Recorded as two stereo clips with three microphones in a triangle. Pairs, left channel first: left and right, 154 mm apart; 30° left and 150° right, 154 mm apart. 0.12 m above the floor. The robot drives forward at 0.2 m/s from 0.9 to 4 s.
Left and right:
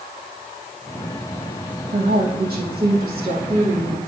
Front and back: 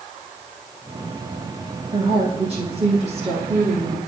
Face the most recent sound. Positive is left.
turn(degrees=-105)